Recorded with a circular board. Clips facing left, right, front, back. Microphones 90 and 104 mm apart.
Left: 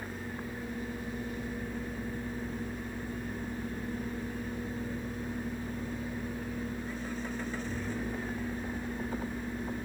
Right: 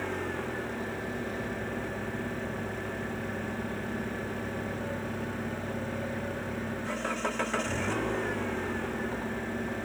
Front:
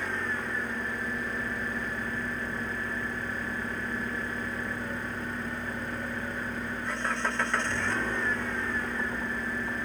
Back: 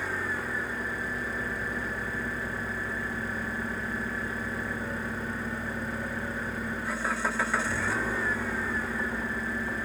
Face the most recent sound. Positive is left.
turn(degrees=-95)